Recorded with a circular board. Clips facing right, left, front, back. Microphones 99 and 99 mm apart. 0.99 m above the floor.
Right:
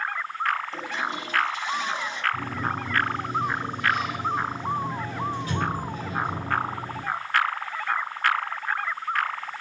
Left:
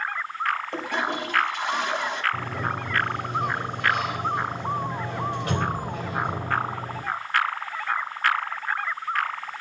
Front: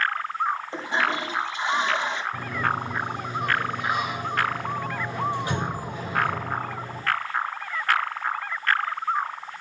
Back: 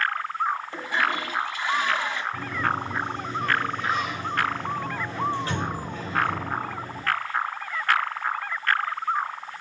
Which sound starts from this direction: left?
A sliding door, at 2.3 s.